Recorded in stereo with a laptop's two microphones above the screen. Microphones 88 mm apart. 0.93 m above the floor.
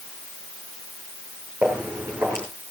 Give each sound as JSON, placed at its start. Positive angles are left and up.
{"t": 1.6, "sound": "footsteps", "side_deg": -25, "distance_m": 4.5}